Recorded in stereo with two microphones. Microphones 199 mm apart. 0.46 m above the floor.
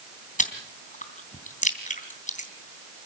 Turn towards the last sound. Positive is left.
turn(degrees=40)  # may be behind; listen again after turning